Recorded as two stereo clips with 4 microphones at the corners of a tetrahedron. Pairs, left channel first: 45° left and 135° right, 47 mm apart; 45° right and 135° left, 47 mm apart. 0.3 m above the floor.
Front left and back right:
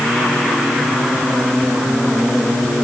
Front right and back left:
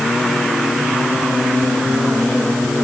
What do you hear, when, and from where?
Only background noise.